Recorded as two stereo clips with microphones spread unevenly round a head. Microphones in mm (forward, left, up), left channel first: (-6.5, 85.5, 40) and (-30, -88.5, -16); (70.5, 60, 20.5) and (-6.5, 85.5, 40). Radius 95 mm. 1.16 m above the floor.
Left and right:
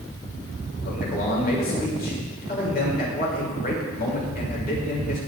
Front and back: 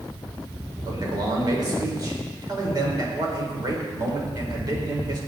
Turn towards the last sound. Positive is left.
turn(degrees=120)